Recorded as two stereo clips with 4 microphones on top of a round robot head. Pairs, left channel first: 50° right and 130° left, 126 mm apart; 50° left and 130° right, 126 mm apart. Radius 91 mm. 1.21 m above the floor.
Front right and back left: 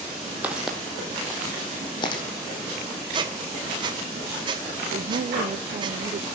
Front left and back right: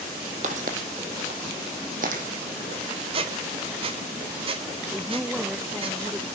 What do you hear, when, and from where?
0.4 s footsteps: 150° right, 1.8 m; by 2.2 s 100° right, 2.5 m
3.1 s a squeak: 175° right, 1.3 m
4.9 s a woman speaking: 145° left, 0.6 m